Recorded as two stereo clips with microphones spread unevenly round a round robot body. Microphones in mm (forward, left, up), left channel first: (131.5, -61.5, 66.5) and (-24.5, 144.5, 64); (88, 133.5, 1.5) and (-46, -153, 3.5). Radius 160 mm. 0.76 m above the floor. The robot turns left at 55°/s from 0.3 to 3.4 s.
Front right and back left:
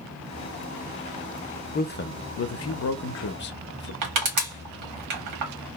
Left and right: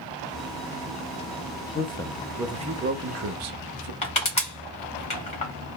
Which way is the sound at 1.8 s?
Straight ahead.